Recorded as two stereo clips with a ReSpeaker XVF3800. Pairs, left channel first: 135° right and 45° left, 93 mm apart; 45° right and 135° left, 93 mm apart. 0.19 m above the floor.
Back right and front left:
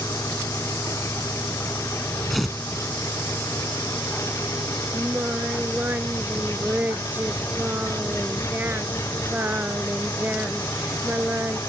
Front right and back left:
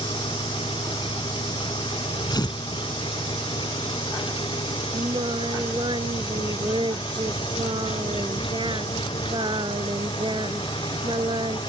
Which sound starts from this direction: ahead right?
Tearing paper, at 2.3 s.